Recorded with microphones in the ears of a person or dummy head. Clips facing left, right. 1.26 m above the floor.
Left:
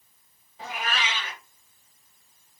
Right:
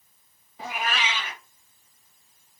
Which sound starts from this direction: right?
A cat meowing, at 0.6 s.